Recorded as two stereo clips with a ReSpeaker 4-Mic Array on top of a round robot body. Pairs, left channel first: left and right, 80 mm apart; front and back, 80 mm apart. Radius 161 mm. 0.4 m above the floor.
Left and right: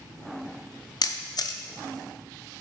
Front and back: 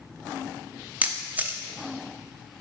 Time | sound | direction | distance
1.0 | a camera shutter | 110° left | 0.6 m